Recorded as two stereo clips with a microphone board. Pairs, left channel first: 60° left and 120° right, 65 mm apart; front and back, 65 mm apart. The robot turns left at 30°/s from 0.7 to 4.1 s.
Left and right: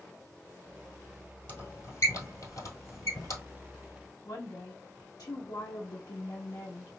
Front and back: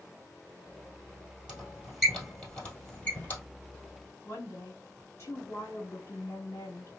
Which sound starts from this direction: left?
A squeak, at 1.5 s.